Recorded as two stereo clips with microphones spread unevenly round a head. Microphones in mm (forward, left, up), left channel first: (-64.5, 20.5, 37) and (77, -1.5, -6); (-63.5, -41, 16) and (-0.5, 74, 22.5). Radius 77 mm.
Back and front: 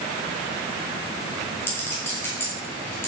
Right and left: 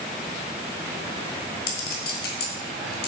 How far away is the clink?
About 2.5 m.